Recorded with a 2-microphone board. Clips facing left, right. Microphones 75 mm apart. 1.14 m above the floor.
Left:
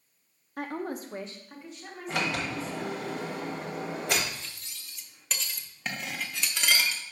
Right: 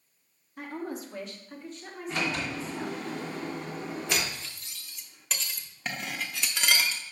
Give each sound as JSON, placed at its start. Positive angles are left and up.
{"t": 0.6, "sound": "a woman speaking", "side_deg": 70, "distance_m": 0.9}
{"t": 2.1, "sound": "a sliding door", "side_deg": 65, "distance_m": 1.2}
{"t": 4.1, "sound": "cutlery clinking", "side_deg": -5, "distance_m": 0.7}